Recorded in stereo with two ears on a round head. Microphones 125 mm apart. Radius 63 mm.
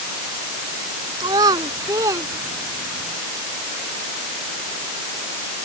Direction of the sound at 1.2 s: 30° right (ahead or behind).